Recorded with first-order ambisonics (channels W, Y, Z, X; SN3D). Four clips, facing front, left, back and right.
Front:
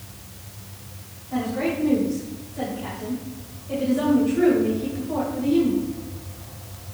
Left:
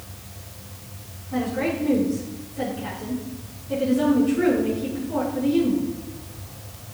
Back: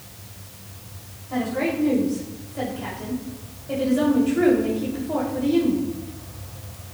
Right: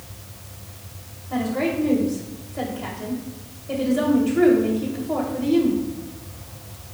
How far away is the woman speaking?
About 2.5 m.